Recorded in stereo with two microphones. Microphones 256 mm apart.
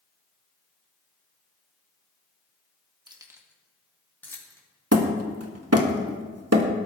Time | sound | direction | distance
3.1 | keys jangling | 15° right (ahead or behind) | 1.3 m
4.9 | hammering | 70° right (ahead or behind) | 1.4 m